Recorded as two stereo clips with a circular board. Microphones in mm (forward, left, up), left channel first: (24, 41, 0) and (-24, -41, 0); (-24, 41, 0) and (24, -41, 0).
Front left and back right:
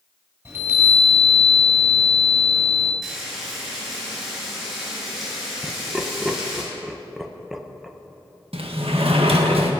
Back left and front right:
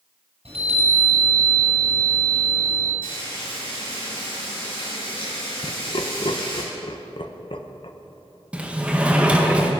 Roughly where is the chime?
Ahead right.